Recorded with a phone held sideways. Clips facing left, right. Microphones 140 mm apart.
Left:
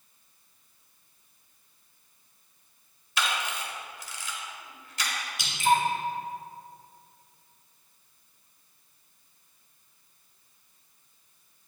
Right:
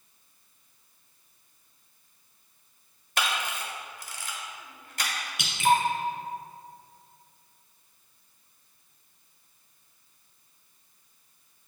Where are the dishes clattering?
I don't hear dishes clattering.